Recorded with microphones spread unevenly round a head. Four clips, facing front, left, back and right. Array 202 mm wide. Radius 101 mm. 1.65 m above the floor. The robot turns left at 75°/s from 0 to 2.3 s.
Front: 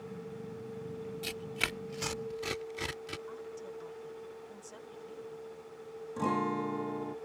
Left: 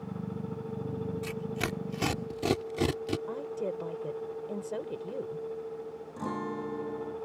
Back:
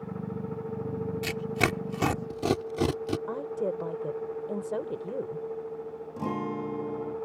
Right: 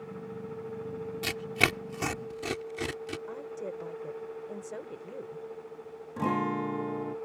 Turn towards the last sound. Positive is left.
turn(degrees=-90)